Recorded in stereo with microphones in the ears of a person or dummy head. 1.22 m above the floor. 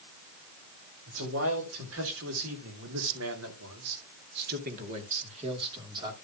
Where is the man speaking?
80° right, 4.5 m; by 6.1 s 10° right (ahead or behind), 3 m.